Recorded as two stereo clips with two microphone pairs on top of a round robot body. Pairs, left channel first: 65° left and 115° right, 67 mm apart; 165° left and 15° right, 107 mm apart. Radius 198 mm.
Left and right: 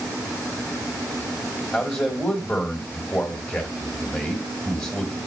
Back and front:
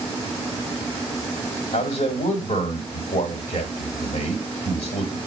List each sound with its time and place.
1.7 s a man speaking: 150° left, 1.4 m